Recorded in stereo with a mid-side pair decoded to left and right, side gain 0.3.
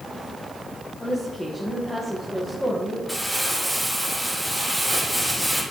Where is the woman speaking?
15° left, 2 m.